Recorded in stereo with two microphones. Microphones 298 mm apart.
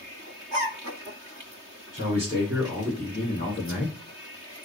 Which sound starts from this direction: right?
A man speaking, at 1.9 s.